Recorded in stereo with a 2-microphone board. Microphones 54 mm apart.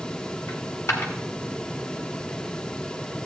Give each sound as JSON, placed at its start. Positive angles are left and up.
{"t": 0.5, "sound": "a dropped coin", "side_deg": 55, "distance_m": 1.9}